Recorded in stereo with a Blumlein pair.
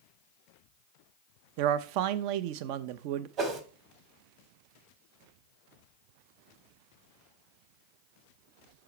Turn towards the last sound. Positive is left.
turn(degrees=-30)